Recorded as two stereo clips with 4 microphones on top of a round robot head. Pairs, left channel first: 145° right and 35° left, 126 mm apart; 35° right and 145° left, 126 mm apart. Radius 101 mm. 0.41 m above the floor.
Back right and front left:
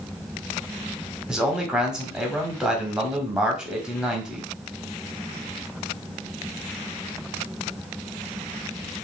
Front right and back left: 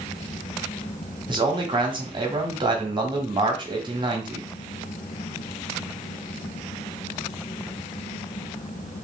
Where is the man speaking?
115° left, 1.2 m.